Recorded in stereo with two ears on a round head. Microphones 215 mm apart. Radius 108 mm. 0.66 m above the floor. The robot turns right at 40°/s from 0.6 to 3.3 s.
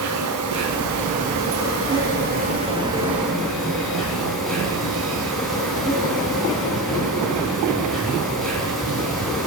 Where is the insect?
105° right, 3.5 m; by 9.5 s straight ahead, 3.5 m.